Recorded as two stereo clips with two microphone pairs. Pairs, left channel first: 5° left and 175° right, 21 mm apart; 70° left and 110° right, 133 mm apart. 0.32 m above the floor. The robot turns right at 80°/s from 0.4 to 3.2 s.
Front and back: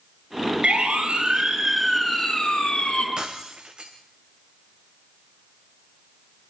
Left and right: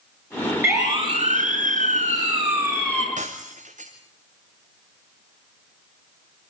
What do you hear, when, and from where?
0.6 s a siren: 175° left, 6.5 m; by 3.1 s straight ahead, 5 m
3.2 s breaking glass: 135° right, 2 m